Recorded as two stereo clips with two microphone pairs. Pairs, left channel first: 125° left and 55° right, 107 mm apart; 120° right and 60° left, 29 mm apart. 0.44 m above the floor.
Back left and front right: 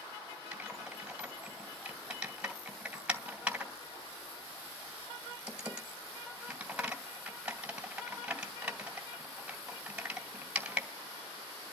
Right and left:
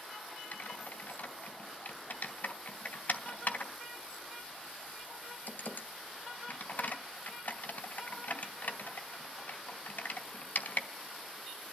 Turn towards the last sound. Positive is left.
turn(degrees=-135)